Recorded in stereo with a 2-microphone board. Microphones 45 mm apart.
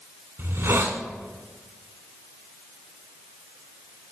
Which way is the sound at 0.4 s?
70° right (ahead or behind).